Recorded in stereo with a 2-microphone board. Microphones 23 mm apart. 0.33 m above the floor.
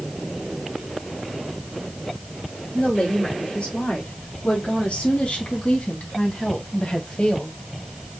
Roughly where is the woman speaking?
Left.